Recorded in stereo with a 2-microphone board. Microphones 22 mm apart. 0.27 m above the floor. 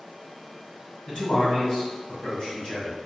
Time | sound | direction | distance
1.1 | a man speaking | 50° left (ahead or behind) | 1.6 m